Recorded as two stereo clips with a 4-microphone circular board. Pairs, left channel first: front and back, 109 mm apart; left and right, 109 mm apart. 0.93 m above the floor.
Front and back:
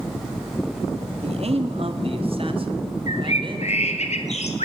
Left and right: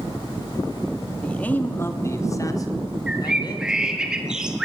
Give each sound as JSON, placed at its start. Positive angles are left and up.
{"t": 1.2, "sound": "a man speaking", "azimuth_deg": 170, "distance_m": 1.7}
{"t": 3.1, "sound": "a bird", "azimuth_deg": -5, "distance_m": 3.0}